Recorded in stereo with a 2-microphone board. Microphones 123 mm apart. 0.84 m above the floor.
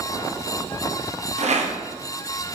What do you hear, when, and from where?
1.4 s a rattle: 75° right (ahead or behind), 0.6 m